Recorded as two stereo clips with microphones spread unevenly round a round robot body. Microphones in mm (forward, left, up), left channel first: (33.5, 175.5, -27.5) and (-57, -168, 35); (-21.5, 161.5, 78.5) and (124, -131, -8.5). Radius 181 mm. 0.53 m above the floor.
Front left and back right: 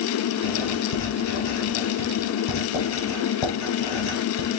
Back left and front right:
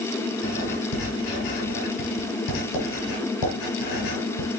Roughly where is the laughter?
I don't hear laughter.